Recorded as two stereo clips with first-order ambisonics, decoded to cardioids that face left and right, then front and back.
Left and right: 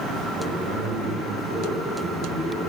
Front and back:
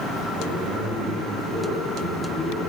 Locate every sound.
0.4 s a man speaking: 155° right, 8.5 m